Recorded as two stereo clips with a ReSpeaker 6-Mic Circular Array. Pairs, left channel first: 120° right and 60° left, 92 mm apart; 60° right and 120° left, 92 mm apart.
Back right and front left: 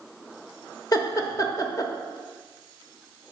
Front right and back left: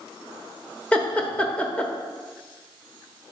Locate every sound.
0.9 s laughter: 130° right, 0.9 m